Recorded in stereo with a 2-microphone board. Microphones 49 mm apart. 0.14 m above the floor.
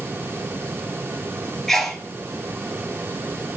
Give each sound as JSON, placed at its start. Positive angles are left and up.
{"t": 1.7, "sound": "a sneeze", "side_deg": 5, "distance_m": 2.5}